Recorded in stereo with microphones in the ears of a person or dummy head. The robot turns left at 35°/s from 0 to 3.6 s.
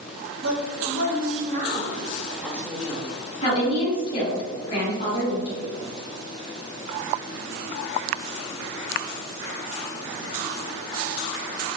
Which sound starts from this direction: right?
A woman speaking, at 0.4 s.